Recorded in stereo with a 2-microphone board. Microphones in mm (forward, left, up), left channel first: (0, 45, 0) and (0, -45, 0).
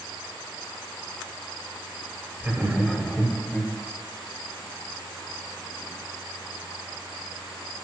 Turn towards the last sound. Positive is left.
turn(degrees=5)  # may be behind; listen again after turning